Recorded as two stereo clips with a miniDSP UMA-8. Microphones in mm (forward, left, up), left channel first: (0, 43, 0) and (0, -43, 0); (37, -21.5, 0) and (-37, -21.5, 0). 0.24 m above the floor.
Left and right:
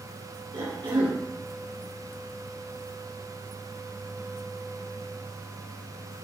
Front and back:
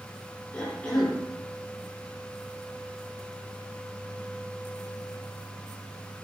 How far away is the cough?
About 4 m.